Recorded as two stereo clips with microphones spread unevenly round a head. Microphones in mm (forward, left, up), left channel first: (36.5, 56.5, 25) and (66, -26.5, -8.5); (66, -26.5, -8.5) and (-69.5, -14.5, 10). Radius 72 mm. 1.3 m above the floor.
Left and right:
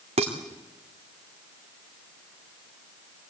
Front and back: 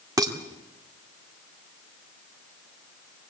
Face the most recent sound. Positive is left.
turn(degrees=-125)